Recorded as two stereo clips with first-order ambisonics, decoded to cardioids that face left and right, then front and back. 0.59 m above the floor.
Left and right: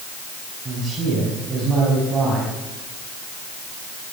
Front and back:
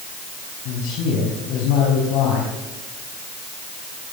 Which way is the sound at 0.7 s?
20° right.